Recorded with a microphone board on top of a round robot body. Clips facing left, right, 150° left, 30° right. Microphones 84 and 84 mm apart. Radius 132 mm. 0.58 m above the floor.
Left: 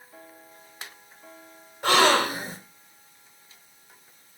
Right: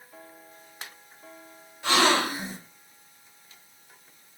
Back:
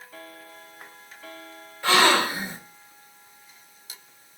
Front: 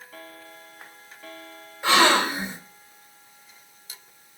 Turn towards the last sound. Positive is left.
turn(degrees=45)